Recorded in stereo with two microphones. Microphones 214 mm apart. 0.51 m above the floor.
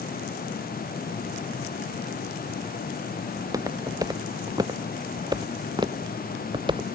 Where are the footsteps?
15° right (ahead or behind); by 6.9 s 20° right (ahead or behind).